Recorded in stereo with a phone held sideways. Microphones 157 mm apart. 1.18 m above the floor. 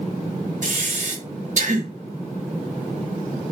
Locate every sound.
0.6 s breathing: 55° right (ahead or behind), 0.8 m